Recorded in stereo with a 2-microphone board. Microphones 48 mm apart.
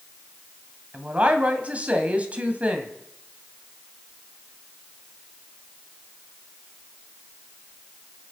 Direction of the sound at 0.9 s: 30° right (ahead or behind).